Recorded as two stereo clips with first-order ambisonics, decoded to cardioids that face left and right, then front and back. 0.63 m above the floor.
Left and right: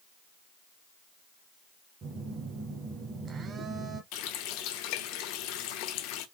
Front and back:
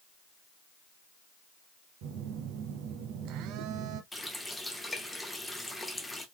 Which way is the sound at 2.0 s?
155° right.